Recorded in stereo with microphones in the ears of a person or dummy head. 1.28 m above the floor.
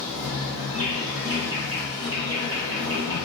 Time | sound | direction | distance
0.0 | an insect | 65° right (ahead or behind) | 3.5 m